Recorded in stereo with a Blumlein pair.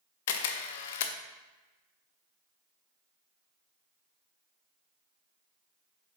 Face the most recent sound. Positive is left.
turn(degrees=55)